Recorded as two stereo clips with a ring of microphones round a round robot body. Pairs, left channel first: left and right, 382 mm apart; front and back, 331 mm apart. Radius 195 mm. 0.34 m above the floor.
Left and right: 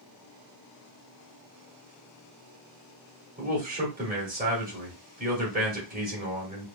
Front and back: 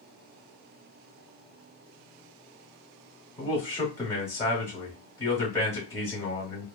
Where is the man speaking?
70° right, 1.6 m.